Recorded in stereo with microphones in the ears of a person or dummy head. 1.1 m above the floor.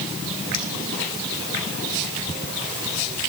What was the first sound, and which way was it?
Cutlery clinking, 80° left.